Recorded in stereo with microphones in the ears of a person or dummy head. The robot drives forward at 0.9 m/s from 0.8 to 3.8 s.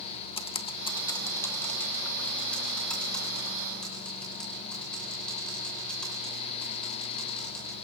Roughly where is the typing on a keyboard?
Left.